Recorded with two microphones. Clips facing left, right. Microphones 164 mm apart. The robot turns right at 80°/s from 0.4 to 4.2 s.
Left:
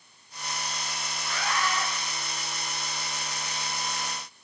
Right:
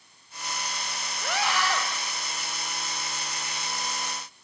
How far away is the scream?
About 7.5 m.